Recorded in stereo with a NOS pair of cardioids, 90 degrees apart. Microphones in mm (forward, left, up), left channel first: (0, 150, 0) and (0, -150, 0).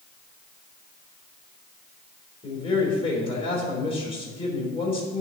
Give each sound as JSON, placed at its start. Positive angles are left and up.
{"t": 2.4, "sound": "a man speaking", "azimuth_deg": 20, "distance_m": 3.5}